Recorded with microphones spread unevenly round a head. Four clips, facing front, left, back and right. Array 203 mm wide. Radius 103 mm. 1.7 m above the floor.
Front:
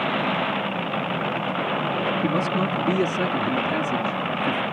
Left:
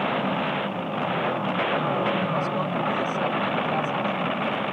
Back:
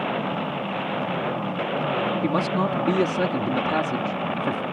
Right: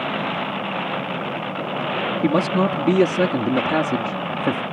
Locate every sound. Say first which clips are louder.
2.2 s a man speaking: right 7 dB, even; 100° right